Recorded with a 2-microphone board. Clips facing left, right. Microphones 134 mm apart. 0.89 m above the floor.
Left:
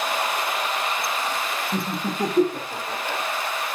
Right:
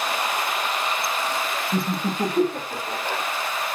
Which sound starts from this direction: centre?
Laughter, at 1.7 s.